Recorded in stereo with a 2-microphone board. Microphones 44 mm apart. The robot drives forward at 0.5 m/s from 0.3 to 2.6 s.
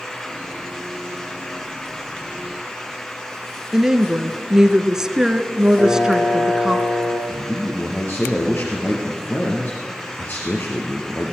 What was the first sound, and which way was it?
A woman speaking, 10° right (ahead or behind).